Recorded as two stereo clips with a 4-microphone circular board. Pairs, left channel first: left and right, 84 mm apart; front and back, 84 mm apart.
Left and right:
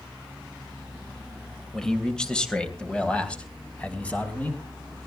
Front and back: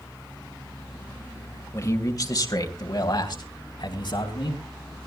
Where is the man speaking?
10° left, 1.7 m; by 4.6 s 15° left, 3.5 m.